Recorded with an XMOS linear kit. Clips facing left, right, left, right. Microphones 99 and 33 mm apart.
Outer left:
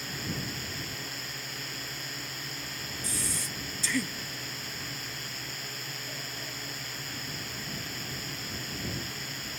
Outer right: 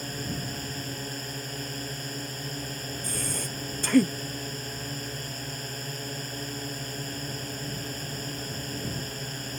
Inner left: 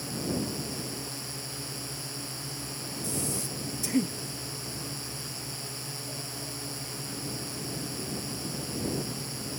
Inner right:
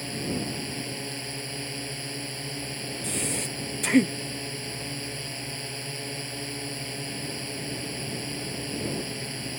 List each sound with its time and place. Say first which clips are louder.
0.0 s a drone: outer right 3 dB, inner right 1 dB; 40° right (ahead or behind)
3.0 s breathing: outer right 2 dB, inner right 3 dB; 50° right (ahead or behind)